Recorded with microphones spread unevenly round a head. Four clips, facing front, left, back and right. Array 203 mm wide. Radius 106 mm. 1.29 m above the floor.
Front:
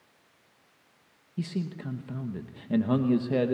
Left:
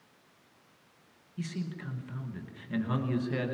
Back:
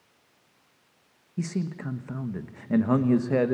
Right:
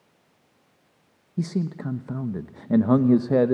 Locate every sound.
1.4 s a man speaking: 100° right, 1.2 m